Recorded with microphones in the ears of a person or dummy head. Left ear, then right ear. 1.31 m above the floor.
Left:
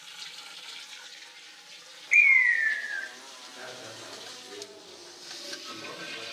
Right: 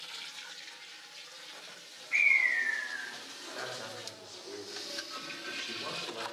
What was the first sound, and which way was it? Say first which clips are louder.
A bird: left 6 dB; 75° left (ahead or behind).